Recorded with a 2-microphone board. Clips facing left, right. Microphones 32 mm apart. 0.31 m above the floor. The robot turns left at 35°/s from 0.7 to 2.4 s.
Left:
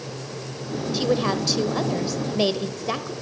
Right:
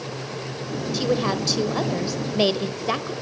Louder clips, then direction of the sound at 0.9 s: Left 1 dB; 5° left (ahead or behind).